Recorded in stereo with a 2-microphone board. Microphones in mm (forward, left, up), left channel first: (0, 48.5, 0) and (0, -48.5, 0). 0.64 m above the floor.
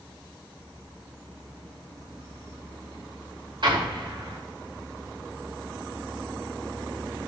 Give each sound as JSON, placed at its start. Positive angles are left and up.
{"t": 3.6, "sound": "an explosion", "side_deg": -60, "distance_m": 1.8}